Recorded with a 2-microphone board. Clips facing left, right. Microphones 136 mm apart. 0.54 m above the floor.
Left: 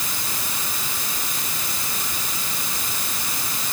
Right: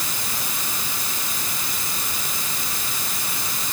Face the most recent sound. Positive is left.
No sound to turn to.